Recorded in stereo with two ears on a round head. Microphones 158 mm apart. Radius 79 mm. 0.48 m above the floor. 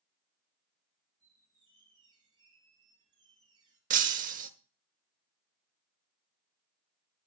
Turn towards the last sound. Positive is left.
turn(degrees=-50)  # may be behind; listen again after turning